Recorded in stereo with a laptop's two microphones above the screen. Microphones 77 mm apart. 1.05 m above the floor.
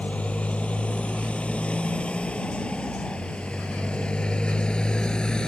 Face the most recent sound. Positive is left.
turn(degrees=10)  # may be behind; listen again after turning